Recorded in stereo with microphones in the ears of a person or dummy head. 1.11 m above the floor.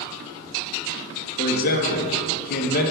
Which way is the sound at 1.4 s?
60° left (ahead or behind).